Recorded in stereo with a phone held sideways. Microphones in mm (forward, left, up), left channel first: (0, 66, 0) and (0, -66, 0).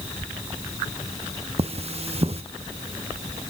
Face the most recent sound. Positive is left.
turn(degrees=-50)  # may be behind; listen again after turning